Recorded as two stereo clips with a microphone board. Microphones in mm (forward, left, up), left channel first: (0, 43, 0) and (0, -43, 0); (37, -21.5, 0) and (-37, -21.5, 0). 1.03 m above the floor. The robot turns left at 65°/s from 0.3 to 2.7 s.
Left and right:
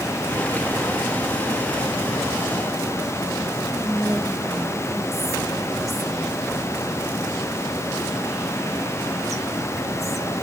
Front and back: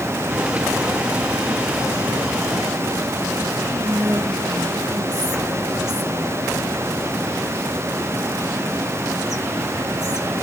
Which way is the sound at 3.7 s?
Straight behind.